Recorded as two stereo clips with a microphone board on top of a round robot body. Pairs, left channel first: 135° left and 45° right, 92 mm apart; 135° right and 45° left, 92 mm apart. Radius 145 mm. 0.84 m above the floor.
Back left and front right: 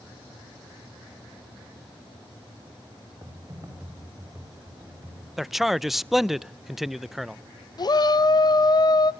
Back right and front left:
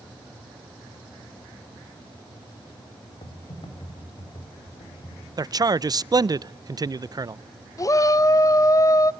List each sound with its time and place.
3.2 s typing on a keyboard: 105° right, 4 m
5.4 s a man speaking: 40° left, 0.5 m
7.8 s a shout: 175° left, 0.9 m